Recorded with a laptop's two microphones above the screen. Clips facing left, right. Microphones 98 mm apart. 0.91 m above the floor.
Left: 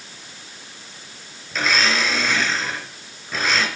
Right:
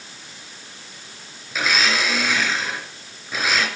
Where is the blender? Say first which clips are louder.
Left 1 dB; 5° right (ahead or behind), 3.5 m.